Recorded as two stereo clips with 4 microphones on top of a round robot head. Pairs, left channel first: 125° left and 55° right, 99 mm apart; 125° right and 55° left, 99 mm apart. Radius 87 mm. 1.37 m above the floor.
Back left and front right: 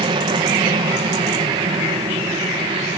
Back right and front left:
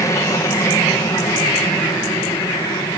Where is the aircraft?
70° right; by 3.0 s 75° right.